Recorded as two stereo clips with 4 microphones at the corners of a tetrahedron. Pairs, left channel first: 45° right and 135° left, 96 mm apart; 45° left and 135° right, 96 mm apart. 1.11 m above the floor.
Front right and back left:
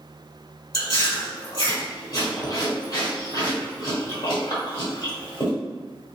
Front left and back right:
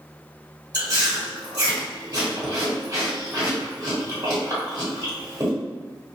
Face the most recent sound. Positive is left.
turn(degrees=-90)